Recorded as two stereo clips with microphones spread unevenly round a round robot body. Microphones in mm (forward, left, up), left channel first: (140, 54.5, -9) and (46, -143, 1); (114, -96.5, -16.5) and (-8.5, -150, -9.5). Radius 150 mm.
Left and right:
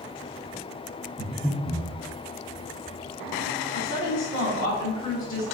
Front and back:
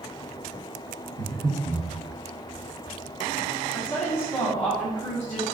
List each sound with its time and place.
1.2 s breathing: 170° left, 0.8 m
3.7 s a woman speaking: 105° left, 0.9 m